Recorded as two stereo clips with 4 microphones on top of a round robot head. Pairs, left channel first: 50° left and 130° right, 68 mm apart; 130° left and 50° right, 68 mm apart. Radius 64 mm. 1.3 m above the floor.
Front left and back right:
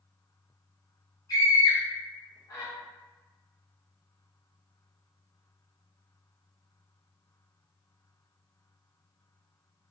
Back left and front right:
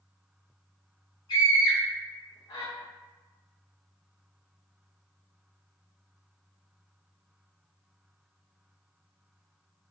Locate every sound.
1.3 s a scream: 100° left, 0.5 m